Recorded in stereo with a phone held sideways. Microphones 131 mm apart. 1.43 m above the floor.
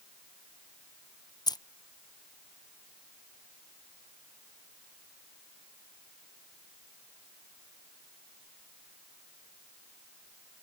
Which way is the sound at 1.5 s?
30° left (ahead or behind).